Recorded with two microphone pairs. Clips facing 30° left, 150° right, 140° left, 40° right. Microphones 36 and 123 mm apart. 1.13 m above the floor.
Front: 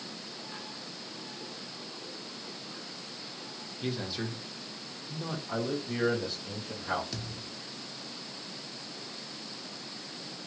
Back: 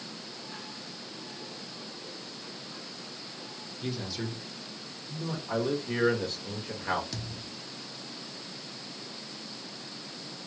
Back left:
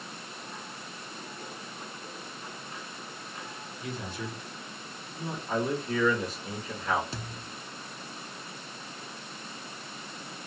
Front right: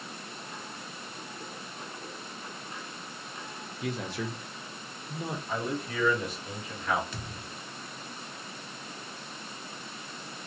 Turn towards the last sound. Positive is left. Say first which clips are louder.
# even, back left 1 dB
turn(degrees=115)